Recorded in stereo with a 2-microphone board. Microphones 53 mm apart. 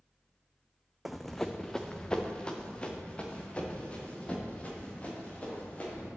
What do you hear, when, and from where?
1.1 s running footsteps: 5° right (ahead or behind), 0.6 m; by 6.1 s 25° left (ahead or behind), 4 m